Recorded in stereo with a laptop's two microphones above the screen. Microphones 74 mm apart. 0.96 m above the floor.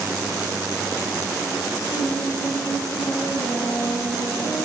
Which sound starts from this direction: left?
Singing, at 1.9 s.